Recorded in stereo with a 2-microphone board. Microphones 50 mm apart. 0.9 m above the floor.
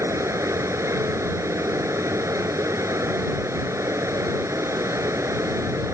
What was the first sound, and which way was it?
Running water, 85° right.